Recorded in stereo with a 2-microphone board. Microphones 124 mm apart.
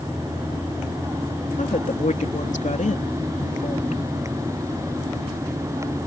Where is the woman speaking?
85° left.